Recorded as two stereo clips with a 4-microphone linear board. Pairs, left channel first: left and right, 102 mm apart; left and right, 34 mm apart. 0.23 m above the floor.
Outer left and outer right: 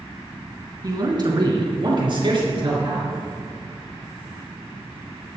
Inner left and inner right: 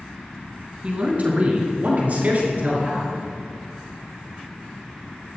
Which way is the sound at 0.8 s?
40° right (ahead or behind).